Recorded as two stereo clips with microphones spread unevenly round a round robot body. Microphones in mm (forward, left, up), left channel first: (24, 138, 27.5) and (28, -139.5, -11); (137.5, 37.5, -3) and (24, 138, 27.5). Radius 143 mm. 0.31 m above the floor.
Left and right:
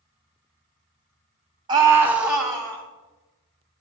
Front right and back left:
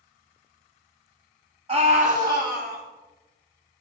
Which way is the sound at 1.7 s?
155° right.